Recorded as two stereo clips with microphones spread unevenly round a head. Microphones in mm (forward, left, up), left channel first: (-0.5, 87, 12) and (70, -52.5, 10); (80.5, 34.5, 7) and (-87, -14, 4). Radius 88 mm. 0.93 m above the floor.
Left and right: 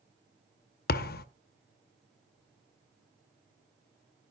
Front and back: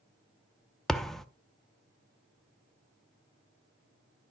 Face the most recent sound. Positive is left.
turn(degrees=105)